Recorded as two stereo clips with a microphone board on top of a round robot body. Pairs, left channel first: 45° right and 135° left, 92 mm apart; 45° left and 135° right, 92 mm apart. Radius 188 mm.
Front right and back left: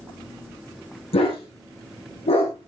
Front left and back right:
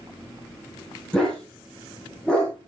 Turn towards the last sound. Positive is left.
turn(degrees=-35)